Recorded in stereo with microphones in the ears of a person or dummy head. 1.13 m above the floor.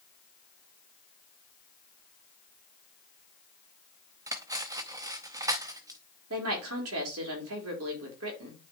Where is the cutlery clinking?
20° right (ahead or behind), 0.7 m.